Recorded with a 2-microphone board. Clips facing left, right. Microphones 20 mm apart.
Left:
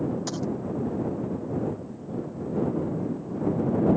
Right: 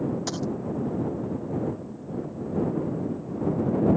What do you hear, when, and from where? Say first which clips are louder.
0.3 s a dropped coin: right 1 dB; 10° right (ahead or behind)